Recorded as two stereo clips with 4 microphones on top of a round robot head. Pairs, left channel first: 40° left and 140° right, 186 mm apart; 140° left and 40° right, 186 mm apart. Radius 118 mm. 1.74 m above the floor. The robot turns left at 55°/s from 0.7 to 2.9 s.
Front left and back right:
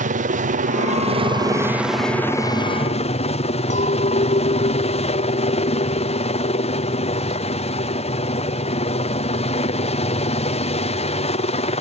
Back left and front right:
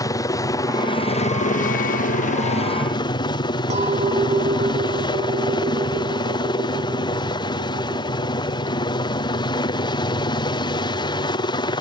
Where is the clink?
Straight ahead.